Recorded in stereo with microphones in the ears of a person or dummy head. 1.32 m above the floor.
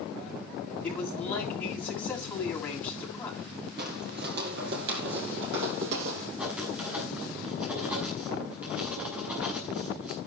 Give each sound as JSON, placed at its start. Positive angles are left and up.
{"t": 0.8, "sound": "a man speaking", "side_deg": 15, "distance_m": 9.0}
{"t": 3.8, "sound": "footsteps", "side_deg": -45, "distance_m": 2.5}
{"t": 6.4, "sound": "writing", "side_deg": -15, "distance_m": 6.0}